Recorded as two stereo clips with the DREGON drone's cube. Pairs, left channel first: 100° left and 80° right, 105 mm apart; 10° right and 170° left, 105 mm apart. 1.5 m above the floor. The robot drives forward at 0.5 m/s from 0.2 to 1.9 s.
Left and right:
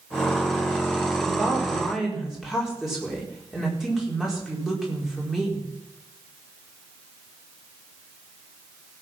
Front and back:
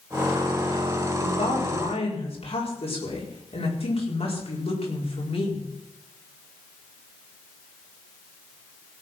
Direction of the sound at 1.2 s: 5° left.